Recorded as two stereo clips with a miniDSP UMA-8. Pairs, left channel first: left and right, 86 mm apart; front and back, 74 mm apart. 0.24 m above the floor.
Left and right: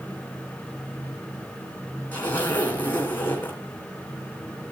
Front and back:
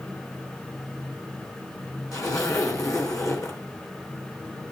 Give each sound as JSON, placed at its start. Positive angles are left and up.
{"t": 2.1, "sound": "a zipper", "azimuth_deg": 25, "distance_m": 2.5}